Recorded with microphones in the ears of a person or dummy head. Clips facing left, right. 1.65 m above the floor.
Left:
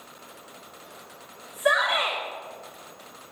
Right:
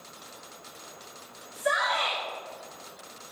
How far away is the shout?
About 6 m.